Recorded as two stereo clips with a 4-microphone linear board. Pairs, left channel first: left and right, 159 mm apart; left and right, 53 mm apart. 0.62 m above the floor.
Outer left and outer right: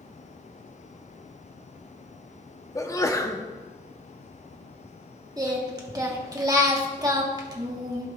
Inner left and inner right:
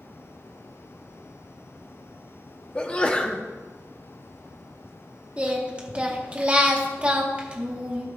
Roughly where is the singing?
Right.